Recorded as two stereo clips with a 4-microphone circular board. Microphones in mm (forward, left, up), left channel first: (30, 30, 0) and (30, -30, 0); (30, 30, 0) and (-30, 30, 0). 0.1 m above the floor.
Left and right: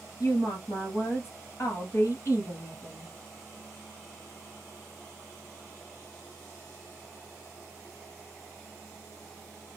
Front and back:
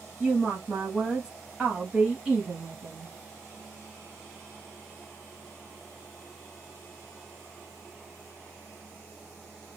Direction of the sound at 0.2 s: 110° left.